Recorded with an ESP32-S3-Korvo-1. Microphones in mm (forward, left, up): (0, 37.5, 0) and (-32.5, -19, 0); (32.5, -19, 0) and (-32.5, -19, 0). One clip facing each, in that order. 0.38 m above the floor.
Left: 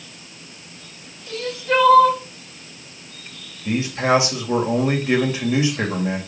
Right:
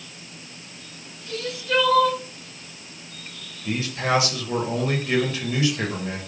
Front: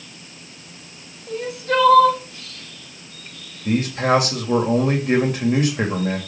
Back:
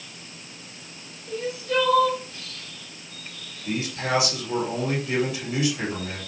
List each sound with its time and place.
1.3 s crying: 10° left, 1.6 m
3.6 s a man speaking: straight ahead, 1.8 m